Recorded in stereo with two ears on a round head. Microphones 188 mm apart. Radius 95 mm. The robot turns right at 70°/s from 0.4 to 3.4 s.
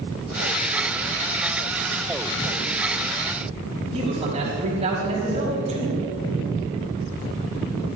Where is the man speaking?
30° right (ahead or behind), 3.5 m.